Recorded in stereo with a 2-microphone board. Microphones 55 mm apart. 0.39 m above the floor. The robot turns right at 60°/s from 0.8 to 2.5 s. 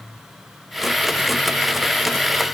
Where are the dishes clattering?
No dishes clattering in this recording.